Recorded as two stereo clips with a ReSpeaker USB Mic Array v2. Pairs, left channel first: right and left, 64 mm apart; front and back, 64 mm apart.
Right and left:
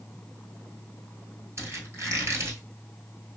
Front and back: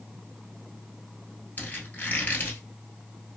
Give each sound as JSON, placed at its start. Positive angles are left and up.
{"t": 1.6, "sound": "a squeak", "azimuth_deg": 55, "distance_m": 1.3}